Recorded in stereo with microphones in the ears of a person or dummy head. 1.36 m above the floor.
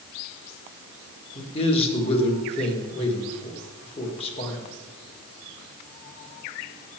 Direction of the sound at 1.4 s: 30° left (ahead or behind).